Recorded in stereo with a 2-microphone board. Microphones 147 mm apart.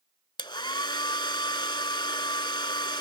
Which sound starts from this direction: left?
A hair dryer, at 0.4 s.